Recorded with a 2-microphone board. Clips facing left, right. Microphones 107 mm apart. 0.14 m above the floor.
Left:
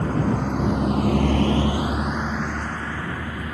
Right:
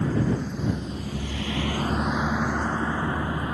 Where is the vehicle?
60° left (ahead or behind); by 3.5 s 25° right (ahead or behind).